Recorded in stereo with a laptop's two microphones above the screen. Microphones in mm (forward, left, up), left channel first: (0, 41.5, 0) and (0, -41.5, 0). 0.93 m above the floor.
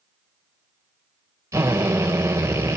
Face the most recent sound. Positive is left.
turn(degrees=-35)  # may be behind; listen again after turning